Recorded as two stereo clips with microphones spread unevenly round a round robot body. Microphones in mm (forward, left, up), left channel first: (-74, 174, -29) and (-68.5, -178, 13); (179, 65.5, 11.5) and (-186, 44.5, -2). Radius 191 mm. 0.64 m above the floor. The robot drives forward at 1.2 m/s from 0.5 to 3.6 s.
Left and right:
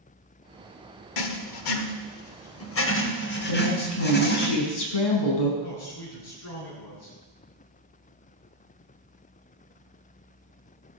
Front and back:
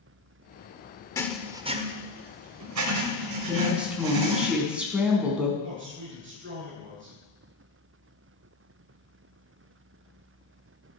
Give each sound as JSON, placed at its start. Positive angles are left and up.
{"t": 1.2, "sound": "writing", "azimuth_deg": 85, "distance_m": 1.5}
{"t": 3.5, "sound": "a woman speaking", "azimuth_deg": 95, "distance_m": 5.0}
{"t": 5.6, "sound": "a man speaking", "azimuth_deg": 125, "distance_m": 7.5}